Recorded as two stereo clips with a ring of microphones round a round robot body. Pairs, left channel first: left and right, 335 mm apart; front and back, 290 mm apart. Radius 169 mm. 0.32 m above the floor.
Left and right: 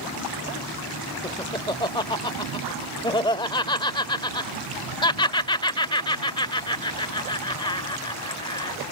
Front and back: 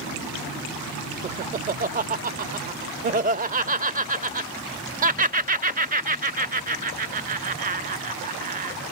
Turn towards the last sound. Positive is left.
turn(degrees=155)